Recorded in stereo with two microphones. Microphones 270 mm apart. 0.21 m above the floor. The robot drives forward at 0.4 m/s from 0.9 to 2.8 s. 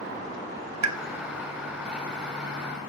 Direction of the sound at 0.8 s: 85° right.